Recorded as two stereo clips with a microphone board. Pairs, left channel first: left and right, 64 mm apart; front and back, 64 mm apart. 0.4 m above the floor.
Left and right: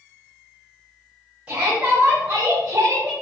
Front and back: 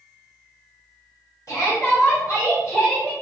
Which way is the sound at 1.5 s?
20° right.